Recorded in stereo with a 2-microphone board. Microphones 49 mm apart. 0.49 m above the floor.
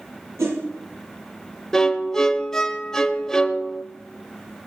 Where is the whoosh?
80° right, 9.5 m.